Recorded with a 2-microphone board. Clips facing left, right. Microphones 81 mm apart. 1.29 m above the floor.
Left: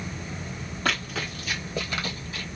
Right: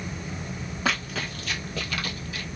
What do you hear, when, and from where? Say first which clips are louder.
0.8 s running footsteps: even; 5° right (ahead or behind), 1.7 m; by 2.5 s 35° left (ahead or behind), 1.7 m